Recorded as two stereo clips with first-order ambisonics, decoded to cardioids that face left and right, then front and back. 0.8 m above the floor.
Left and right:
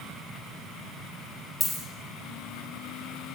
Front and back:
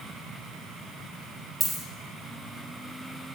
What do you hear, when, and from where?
1.6 s a dropped coin: 175° left, 0.6 m